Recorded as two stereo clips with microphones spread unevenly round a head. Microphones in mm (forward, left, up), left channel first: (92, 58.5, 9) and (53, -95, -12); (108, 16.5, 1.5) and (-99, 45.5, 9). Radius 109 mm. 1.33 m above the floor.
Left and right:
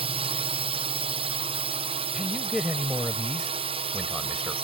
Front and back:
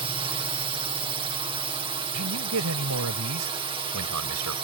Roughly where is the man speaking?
Behind.